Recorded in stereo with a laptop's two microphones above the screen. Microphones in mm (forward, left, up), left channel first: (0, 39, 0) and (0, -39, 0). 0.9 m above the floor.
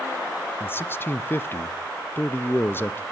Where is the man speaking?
25° left (ahead or behind), 0.6 m.